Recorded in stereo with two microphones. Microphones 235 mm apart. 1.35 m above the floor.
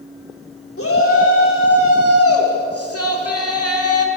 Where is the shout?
70° left (ahead or behind), 4 m; by 4.1 s 85° left, 3 m.